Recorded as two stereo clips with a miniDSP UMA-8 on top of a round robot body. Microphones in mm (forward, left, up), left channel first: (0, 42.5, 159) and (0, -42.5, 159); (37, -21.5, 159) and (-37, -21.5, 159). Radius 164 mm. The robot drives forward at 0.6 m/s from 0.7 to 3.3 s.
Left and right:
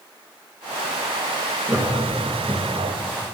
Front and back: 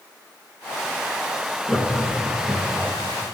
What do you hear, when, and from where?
1.7 s laughter: 100° right, 1.3 m; by 2.9 s 155° right, 1.5 m